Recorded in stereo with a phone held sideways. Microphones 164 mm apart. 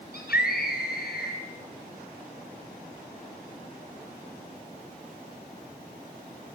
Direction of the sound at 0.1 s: 70° left (ahead or behind).